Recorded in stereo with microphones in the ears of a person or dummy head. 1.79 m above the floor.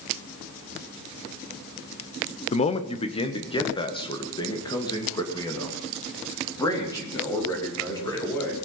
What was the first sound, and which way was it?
A man speaking, 35° left (ahead or behind).